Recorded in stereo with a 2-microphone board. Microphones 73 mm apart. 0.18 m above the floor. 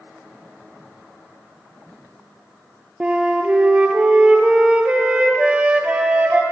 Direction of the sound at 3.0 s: 15° right (ahead or behind).